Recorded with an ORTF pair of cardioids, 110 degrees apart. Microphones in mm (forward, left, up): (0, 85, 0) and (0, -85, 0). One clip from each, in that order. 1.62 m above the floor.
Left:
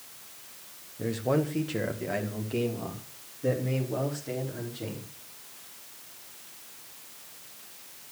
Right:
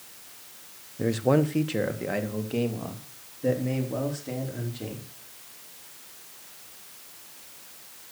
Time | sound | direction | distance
1.0 | a man speaking | 30° right | 1.1 m